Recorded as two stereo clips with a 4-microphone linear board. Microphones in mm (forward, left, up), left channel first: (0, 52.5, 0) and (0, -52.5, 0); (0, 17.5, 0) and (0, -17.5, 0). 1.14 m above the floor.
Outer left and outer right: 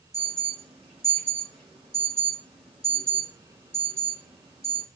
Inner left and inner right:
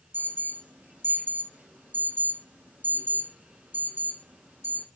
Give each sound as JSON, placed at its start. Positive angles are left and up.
{"t": 0.1, "sound": "an alarm", "side_deg": -65, "distance_m": 2.5}